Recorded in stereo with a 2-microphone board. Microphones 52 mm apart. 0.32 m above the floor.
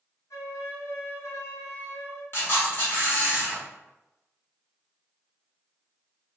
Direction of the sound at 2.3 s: 45° left (ahead or behind).